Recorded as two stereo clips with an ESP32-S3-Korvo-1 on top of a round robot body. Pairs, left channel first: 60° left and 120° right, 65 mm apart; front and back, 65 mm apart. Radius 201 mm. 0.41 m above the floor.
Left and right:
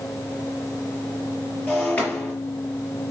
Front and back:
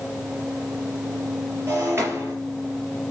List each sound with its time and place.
1.7 s breaking glass: 125° left, 5.5 m